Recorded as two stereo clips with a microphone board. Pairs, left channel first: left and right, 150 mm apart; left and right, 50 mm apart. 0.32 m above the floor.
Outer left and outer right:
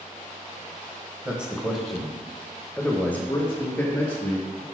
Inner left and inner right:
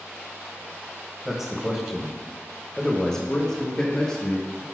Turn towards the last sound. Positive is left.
turn(degrees=15)  # may be behind; listen again after turning